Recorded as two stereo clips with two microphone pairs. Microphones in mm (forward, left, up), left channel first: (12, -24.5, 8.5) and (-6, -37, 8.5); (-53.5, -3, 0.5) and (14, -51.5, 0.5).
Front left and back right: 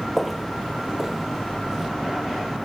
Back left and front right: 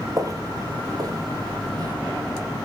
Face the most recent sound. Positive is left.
turn(degrees=-70)